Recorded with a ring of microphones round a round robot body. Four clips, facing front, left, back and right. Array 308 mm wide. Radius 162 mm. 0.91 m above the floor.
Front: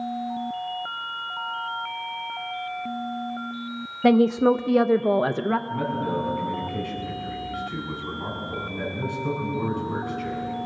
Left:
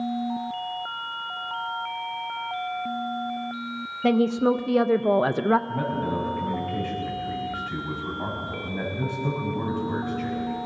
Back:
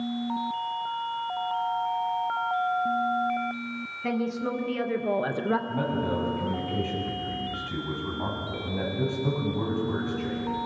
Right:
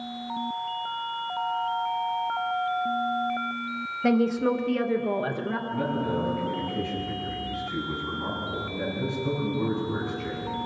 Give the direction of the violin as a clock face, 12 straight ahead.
No violin in this recording.